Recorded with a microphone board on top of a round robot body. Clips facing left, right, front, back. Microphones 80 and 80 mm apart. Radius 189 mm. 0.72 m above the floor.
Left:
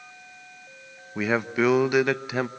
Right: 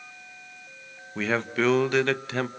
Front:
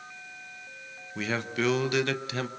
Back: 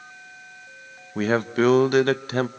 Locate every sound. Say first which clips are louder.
1.1 s a man speaking: left 2 dB, back 9 dB; 165° left, 1.2 m